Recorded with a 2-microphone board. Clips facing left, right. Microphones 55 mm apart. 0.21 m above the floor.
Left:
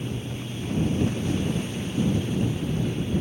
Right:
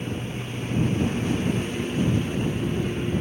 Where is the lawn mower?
45° right (ahead or behind).